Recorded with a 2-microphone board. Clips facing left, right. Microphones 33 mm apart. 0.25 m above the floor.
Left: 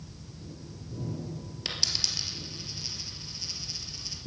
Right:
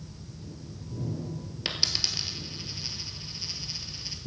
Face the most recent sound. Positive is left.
turn(degrees=-20)  # may be behind; listen again after turning